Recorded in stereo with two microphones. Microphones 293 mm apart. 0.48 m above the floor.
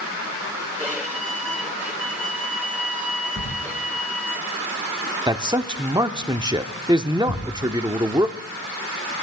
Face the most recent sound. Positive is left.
turn(degrees=45)  # may be behind; listen again after turning